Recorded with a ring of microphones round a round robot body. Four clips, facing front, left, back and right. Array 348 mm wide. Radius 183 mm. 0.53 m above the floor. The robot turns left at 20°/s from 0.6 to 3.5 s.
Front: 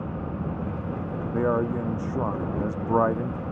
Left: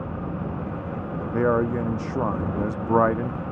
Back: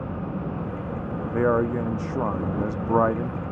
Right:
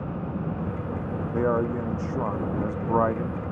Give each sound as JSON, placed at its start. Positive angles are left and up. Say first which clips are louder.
{"t": 1.3, "sound": "a man speaking", "louder": "left 3 dB, back 3 dB", "azimuth_deg": 140}